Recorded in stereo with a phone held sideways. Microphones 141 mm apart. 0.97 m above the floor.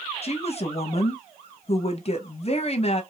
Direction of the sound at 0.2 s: 45° left (ahead or behind).